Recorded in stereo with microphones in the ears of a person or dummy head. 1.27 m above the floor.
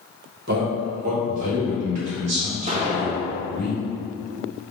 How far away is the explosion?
About 0.6 m.